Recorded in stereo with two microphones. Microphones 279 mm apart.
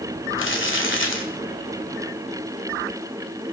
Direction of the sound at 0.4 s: 45° left (ahead or behind).